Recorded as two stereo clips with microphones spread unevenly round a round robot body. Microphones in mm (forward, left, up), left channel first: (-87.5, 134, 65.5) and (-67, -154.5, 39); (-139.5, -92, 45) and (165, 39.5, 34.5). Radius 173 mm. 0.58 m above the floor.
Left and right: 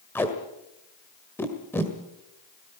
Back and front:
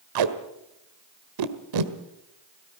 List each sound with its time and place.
0.1 s tape being pulled: 10° left, 1.6 m